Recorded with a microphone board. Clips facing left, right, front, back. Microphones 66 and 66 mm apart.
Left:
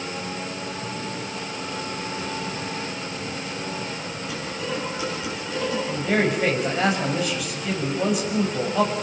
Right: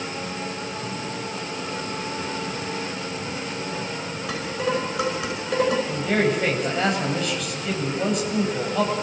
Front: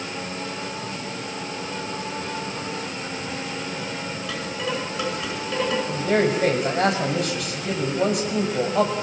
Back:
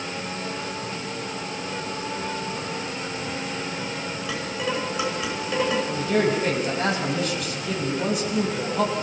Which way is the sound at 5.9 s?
5° left.